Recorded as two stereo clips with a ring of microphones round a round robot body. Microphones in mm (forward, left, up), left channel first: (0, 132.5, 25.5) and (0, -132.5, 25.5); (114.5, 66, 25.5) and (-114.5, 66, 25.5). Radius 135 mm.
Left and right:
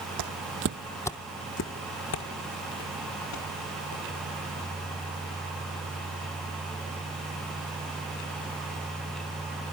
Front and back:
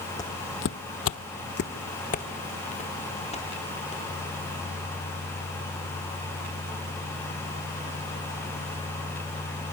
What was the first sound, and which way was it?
Footsteps, 75° right.